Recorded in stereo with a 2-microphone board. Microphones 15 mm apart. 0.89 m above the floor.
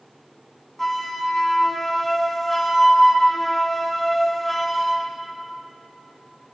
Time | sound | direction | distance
0.8 | a flute | 5° left (ahead or behind) | 1.1 m